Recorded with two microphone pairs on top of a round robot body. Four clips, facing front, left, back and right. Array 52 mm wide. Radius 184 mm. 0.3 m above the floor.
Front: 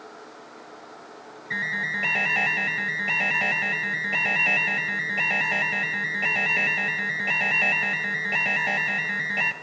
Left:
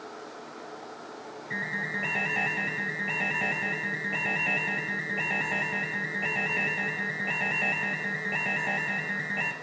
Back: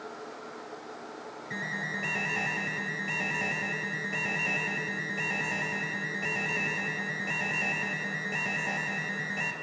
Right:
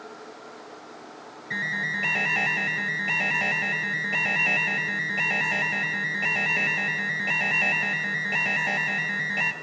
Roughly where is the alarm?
Ahead.